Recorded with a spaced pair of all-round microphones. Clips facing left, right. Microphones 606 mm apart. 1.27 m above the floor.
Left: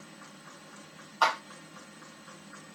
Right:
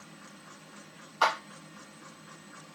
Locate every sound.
1.2 s a clap: 50° right (ahead or behind), 1.9 m